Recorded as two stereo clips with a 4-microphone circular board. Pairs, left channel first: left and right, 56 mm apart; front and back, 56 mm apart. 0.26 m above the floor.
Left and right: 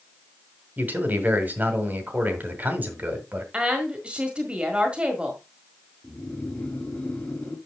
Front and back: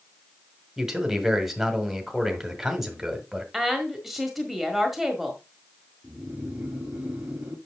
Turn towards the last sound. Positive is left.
turn(degrees=130)